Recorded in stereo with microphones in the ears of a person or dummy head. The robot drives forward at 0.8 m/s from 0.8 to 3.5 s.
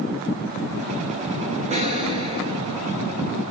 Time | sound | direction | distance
1.7 | an explosion | 25° right (ahead or behind) | 1.6 m